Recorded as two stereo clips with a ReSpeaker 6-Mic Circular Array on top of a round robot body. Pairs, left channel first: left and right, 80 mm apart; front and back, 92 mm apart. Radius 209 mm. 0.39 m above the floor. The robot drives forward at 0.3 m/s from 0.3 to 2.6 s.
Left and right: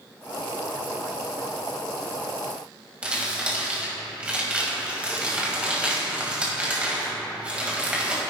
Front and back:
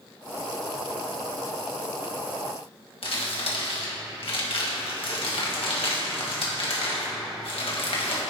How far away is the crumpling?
About 2.0 m.